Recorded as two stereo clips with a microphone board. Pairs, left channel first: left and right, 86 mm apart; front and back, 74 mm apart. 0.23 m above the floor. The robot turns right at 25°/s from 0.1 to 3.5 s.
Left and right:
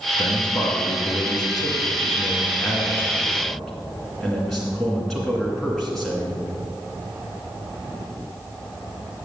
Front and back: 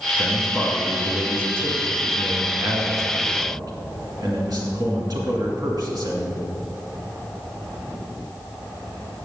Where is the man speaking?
90° left, 2 m; by 6.4 s 175° left, 2 m.